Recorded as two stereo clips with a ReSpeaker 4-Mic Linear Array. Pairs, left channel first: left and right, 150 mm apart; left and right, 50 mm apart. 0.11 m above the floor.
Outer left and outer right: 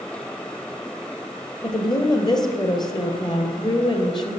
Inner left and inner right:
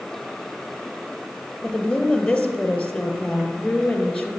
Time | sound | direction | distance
1.6 | a woman speaking | 30° left (ahead or behind) | 1.8 m